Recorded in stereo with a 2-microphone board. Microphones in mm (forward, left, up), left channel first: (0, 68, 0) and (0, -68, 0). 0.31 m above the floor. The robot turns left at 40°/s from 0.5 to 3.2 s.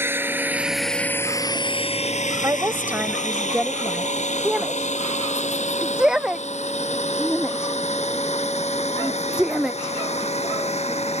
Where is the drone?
15° right (ahead or behind); by 11.2 s 55° left (ahead or behind).